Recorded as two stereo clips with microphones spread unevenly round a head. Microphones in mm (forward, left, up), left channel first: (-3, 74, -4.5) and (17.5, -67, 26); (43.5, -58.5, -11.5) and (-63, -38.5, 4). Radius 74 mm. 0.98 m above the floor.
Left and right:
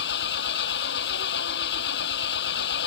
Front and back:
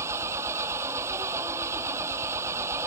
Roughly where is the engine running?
Left.